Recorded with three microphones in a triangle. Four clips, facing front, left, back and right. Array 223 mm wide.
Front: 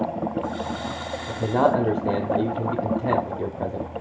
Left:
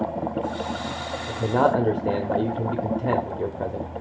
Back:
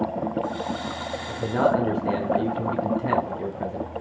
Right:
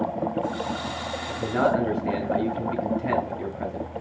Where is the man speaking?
50° left, 0.8 m.